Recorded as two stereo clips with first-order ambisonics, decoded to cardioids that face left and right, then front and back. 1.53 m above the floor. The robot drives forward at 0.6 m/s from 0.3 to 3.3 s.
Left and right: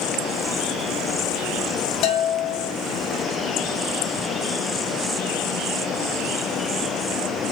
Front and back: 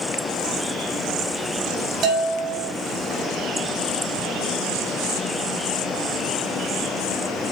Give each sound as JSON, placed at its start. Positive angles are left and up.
{"t": 2.0, "sound": "a bell", "azimuth_deg": 130, "distance_m": 2.5}